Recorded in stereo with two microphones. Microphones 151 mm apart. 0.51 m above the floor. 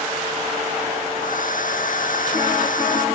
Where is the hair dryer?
60° left (ahead or behind).